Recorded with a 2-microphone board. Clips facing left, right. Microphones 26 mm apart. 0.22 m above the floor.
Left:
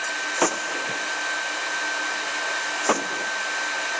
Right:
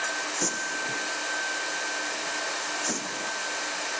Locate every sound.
0.4 s a gunshot: 85° left